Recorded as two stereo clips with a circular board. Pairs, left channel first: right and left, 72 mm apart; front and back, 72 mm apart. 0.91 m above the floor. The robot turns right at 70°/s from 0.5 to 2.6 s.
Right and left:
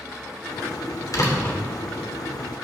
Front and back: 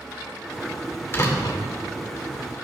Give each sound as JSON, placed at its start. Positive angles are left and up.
{"t": 1.1, "sound": "a door slam", "azimuth_deg": -55, "distance_m": 2.0}